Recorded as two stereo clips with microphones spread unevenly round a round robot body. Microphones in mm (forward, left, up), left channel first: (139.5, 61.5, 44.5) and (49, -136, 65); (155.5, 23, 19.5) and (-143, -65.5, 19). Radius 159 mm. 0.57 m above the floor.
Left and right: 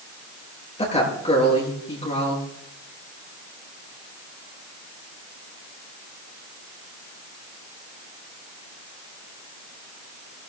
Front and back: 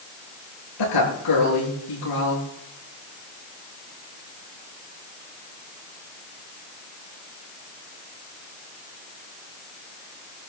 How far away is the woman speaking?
About 8.5 m.